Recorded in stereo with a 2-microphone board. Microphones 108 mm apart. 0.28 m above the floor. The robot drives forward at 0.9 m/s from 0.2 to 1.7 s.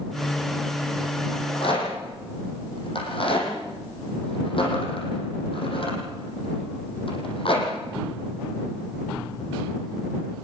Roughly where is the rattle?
Left.